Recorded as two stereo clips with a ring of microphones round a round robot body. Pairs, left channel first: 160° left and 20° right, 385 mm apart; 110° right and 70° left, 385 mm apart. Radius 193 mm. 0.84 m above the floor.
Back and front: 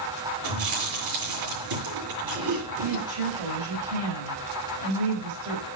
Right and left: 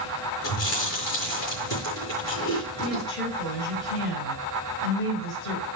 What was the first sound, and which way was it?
Chewing, 60° right.